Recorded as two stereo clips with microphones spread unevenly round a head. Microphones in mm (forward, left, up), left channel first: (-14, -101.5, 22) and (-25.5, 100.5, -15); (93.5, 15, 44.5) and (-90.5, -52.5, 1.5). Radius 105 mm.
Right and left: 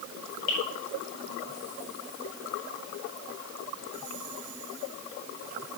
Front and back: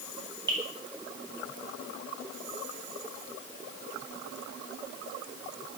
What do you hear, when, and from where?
0.5 s dripping: 90° right, 8.5 m